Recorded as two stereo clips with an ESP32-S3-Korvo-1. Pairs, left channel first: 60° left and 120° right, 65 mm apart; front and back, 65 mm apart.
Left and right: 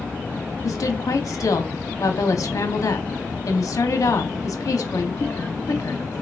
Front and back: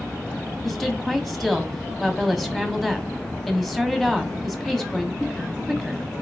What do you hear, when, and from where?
0.6 s a woman speaking: 85° left, 1.0 m